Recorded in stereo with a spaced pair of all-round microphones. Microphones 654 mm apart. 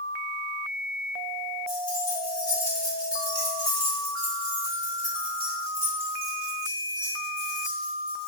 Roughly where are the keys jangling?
Left.